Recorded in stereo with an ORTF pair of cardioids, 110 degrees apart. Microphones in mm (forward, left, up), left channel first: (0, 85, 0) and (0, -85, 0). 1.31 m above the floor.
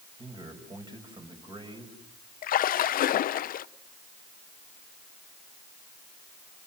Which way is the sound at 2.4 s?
55° left.